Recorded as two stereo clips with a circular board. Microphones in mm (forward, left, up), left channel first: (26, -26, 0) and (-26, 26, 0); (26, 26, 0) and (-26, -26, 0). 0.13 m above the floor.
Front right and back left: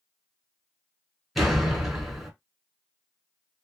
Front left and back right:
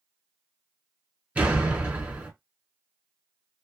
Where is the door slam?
140° right, 1.2 m.